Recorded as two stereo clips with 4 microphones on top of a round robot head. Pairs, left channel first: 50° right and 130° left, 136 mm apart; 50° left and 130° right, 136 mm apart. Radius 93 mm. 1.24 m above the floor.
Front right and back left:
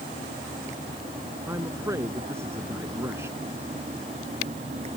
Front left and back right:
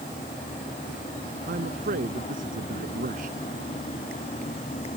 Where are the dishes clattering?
I don't hear dishes clattering.